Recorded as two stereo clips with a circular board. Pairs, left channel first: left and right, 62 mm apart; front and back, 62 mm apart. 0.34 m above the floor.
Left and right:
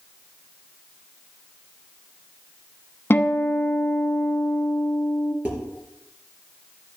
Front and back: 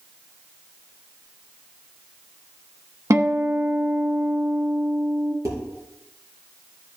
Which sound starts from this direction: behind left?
A guitar, at 3.1 s.